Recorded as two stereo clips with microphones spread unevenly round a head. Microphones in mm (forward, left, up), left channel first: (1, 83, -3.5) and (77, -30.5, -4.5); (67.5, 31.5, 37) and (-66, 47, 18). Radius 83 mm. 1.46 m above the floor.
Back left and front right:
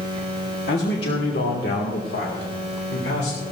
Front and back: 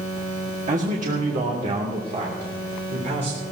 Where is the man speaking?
150° left, 1.6 m; by 3.5 s 135° left, 3 m.